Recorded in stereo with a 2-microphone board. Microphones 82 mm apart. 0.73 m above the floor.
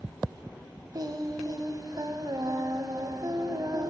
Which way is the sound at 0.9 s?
55° right (ahead or behind).